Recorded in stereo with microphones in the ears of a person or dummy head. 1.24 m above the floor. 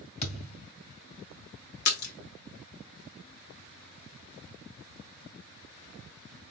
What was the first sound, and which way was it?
A thud, 35° left (ahead or behind).